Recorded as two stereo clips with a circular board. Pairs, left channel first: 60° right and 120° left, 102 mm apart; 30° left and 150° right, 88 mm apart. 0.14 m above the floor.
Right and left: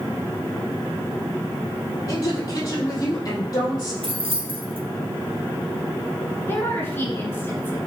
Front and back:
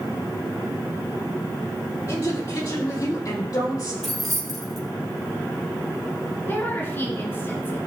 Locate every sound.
2.1 s a woman speaking: 10° right, 4 m
4.0 s keys jangling: 120° left, 2.5 m
6.5 s a woman speaking: 10° right, 1.6 m